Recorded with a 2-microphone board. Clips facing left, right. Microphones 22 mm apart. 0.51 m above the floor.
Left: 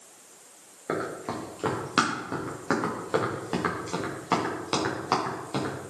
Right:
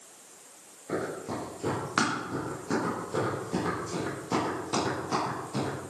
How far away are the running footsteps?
About 4.5 m.